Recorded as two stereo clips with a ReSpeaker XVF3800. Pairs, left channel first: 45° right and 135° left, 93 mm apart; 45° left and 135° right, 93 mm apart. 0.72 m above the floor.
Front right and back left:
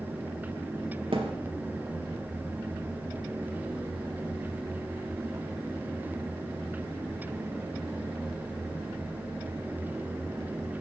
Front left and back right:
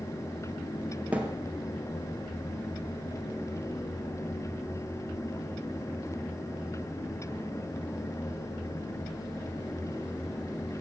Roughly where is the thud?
Behind left.